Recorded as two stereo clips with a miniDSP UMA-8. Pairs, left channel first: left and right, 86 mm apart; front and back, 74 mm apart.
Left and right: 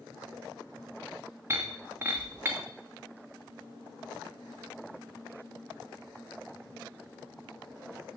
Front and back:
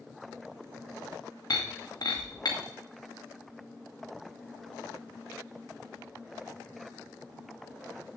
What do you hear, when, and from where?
1.5 s breaking glass: 30° right, 2 m